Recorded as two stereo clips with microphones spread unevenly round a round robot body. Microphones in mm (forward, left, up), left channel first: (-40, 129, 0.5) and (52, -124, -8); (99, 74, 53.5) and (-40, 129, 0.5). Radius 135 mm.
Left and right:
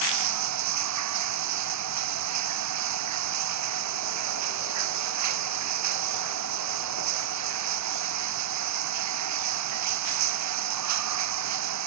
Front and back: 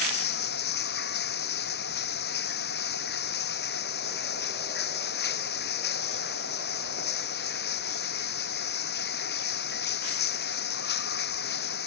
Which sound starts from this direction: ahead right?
Running water, at 0.0 s.